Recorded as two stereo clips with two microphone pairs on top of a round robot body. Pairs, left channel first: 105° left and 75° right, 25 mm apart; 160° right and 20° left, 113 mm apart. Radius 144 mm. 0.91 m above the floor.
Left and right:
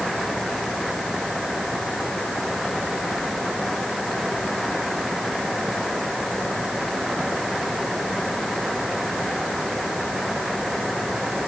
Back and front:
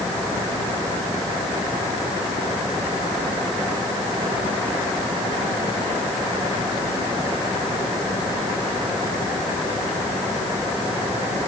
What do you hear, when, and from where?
Only background noise.